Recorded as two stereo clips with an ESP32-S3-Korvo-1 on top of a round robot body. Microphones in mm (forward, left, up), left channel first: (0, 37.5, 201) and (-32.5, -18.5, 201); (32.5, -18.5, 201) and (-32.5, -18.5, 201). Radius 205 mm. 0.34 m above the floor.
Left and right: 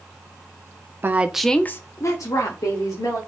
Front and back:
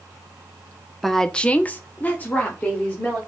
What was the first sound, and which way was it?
A woman speaking, 85° right.